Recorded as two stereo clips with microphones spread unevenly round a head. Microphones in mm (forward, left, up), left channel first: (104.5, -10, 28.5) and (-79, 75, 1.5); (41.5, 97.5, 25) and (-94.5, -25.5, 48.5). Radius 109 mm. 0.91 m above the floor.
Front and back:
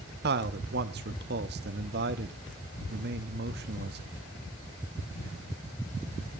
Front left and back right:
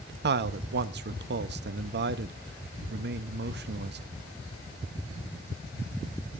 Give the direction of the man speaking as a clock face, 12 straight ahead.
6 o'clock.